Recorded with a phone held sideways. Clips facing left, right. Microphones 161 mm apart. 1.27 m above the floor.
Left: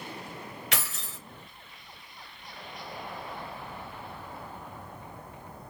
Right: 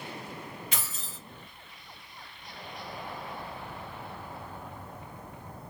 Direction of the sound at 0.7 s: 75° left (ahead or behind).